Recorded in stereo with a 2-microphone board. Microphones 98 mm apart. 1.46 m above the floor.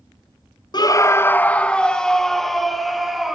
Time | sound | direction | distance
0.7 | a scream | 45° left (ahead or behind) | 0.6 m